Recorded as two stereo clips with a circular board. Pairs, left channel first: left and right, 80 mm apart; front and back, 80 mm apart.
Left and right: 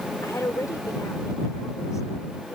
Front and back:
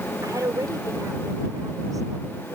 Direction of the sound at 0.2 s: 135° left.